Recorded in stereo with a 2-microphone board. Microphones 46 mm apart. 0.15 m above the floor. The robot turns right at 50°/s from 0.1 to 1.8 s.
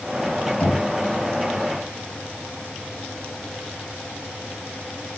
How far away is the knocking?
About 4 m.